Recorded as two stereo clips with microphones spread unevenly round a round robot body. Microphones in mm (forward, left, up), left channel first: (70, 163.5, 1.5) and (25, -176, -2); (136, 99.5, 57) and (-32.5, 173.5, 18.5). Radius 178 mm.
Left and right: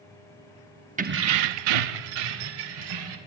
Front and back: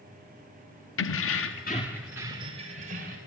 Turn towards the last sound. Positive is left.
turn(degrees=-140)